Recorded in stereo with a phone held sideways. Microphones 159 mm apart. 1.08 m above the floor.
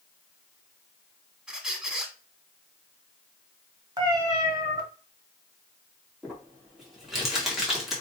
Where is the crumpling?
Centre (ahead or behind), 1.6 m.